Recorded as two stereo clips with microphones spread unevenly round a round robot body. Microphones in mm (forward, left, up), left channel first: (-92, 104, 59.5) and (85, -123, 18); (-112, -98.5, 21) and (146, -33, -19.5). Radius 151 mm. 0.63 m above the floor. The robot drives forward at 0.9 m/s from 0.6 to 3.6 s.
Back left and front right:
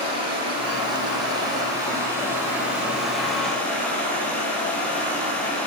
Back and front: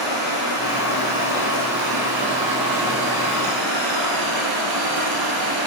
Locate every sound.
0.0 s running water: 25° left, 5.5 m; by 5.7 s 45° left, 3.5 m